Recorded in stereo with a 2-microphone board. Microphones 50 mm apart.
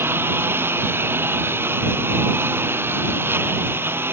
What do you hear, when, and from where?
0.0 s a lawn mower: 50° right (ahead or behind)